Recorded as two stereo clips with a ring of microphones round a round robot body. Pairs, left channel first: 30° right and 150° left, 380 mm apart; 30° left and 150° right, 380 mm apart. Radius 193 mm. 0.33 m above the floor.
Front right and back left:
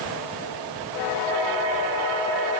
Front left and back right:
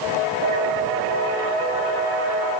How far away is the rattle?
No rattle in this recording.